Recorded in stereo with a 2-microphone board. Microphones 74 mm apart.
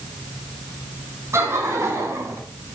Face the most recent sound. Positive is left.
turn(degrees=-40)  # may be behind; listen again after turning